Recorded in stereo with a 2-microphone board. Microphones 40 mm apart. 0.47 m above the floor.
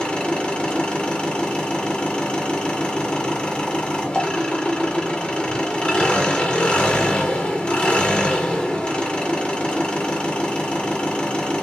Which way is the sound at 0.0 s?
30° left (ahead or behind).